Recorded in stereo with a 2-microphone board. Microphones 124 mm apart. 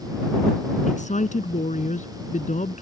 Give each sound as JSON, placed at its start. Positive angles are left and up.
{"t": 0.9, "sound": "a woman speaking", "side_deg": 80}